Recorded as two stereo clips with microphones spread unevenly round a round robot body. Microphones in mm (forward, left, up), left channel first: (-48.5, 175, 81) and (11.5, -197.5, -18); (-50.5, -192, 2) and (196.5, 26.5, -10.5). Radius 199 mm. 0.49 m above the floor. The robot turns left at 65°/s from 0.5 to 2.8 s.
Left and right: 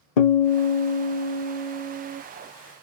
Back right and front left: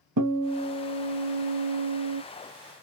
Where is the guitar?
95° left, 0.7 m; by 2.2 s 20° right, 0.7 m.